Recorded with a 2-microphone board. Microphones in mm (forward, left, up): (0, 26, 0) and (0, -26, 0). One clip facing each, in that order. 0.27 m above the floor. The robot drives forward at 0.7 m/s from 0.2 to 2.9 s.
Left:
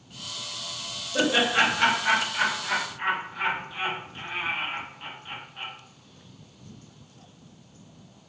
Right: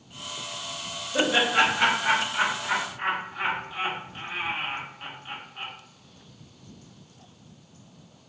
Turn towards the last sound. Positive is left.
turn(degrees=-10)  # may be behind; listen again after turning